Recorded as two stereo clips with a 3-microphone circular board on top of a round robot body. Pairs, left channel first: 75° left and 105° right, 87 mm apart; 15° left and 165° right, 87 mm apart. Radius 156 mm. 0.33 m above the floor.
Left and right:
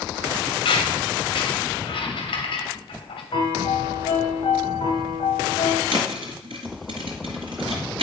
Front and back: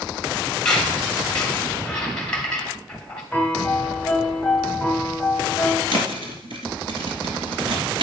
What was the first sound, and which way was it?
A squeak, 95° left.